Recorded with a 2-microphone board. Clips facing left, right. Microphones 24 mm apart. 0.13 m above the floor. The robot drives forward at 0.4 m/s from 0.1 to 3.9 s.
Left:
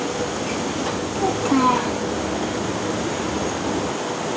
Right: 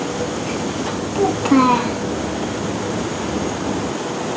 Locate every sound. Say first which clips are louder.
1.1 s a child speaking: right 5 dB; 20° right (ahead or behind), 0.6 m; by 2.0 s 15° right (ahead or behind), 0.7 m